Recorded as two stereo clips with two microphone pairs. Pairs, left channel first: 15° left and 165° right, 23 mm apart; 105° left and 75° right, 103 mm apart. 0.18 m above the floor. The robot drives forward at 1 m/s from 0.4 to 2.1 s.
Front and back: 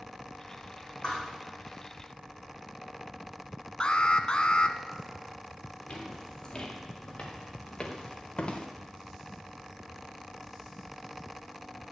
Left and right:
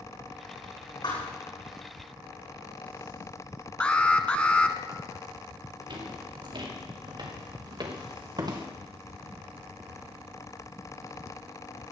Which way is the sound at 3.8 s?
35° left.